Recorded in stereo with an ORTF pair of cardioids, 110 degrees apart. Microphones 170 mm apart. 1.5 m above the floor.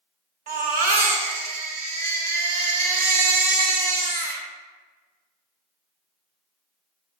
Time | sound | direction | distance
0.5 | a baby crying | 60° right | 1.7 m